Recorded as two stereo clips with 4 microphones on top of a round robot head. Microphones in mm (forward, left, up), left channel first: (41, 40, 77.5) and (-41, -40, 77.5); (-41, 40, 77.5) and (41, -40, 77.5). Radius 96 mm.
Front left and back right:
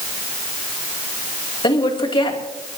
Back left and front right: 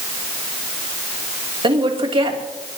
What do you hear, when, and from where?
1.6 s a woman speaking: straight ahead, 3 m